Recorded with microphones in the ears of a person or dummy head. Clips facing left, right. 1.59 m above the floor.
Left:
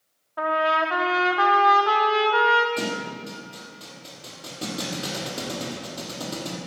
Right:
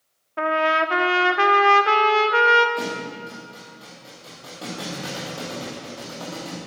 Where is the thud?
25° left (ahead or behind), 3 m.